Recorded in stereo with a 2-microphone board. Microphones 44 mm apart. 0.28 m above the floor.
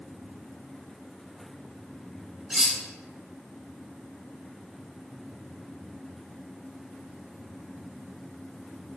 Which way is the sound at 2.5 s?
15° right (ahead or behind).